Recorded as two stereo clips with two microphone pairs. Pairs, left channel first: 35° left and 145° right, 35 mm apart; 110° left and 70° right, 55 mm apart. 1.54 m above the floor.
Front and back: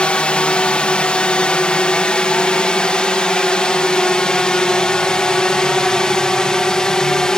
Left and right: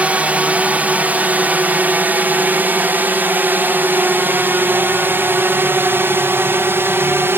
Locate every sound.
0.0 s a drone: 15° right; by 7.4 s 35° right